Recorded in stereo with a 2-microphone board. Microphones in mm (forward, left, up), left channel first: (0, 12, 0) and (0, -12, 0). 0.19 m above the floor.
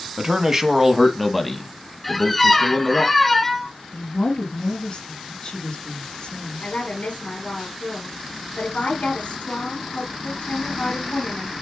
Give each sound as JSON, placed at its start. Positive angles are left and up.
{"t": 0.2, "sound": "a man speaking", "side_deg": -30, "distance_m": 1.3}
{"t": 2.0, "sound": "a squeak", "side_deg": 5, "distance_m": 0.8}
{"t": 3.9, "sound": "a woman speaking", "side_deg": 45, "distance_m": 1.8}
{"t": 6.6, "sound": "a woman speaking", "side_deg": 65, "distance_m": 4.0}